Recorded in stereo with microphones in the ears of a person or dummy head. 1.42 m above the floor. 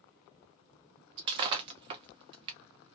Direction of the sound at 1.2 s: 35° right (ahead or behind).